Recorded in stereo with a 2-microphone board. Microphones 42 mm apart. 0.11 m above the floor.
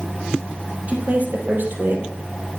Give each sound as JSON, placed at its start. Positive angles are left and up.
{"t": 0.9, "sound": "a woman speaking", "side_deg": -35, "distance_m": 3.0}